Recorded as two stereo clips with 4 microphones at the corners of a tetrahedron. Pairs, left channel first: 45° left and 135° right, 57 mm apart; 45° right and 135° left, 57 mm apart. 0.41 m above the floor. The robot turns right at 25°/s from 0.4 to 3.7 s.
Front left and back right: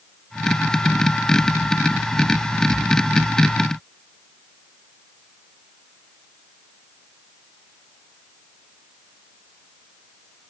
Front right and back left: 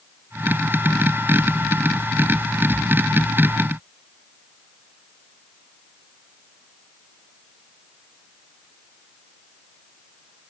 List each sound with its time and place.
Only background noise.